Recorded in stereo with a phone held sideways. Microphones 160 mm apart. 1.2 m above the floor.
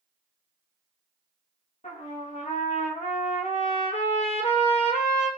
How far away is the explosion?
I don't hear an explosion.